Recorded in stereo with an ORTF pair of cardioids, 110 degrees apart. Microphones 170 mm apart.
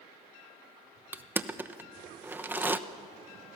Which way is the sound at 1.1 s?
10° right.